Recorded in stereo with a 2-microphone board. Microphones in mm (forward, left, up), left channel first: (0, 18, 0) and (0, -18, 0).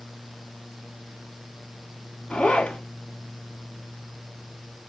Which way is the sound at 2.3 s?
35° left (ahead or behind).